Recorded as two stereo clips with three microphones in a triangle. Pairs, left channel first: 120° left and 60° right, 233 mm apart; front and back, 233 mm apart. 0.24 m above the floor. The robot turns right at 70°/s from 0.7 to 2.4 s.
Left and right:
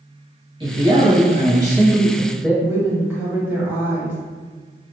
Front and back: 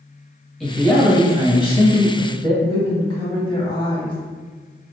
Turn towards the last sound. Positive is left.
turn(degrees=5)